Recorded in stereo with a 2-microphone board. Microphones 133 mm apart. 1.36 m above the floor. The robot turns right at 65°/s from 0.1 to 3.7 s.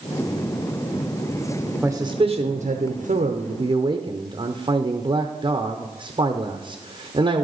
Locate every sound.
1.8 s a man speaking: 165° right, 0.7 m; by 7.4 s 45° right, 0.7 m